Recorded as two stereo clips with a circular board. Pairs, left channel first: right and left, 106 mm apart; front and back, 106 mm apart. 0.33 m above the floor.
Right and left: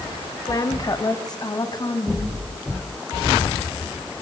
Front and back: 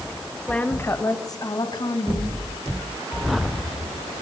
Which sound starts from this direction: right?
A woman speaking, at 0.5 s.